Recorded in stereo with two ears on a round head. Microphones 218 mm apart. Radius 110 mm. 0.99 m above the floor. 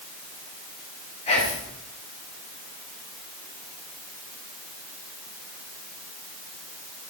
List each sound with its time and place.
1.3 s whispering: 25° left (ahead or behind), 1.6 m